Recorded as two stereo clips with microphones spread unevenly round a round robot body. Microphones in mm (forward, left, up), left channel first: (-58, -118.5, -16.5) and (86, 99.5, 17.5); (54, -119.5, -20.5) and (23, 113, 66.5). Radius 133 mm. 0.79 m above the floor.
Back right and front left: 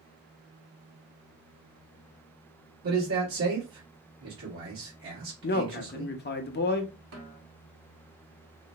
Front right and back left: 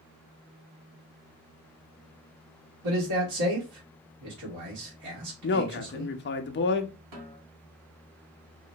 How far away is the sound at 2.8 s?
About 1.6 m.